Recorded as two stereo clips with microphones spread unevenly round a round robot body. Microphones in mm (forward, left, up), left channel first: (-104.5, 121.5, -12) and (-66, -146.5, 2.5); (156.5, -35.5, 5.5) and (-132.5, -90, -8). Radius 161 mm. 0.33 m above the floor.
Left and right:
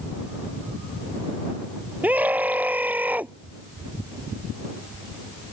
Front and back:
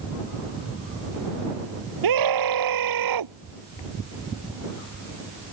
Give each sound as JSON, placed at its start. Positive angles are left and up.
{"t": 2.0, "sound": "a scream", "azimuth_deg": -165}